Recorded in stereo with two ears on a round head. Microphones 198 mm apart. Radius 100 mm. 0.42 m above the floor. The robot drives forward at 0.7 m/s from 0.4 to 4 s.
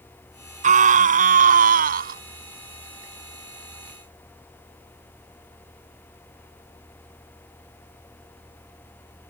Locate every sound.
0.6 s a scream: 35° right (ahead or behind); by 2.2 s 40° right (ahead or behind)